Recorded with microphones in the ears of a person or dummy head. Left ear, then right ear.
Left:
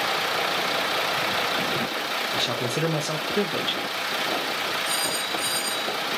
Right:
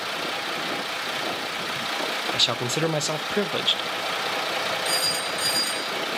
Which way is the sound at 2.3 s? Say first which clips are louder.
Right 2 dB; 25° right (ahead or behind).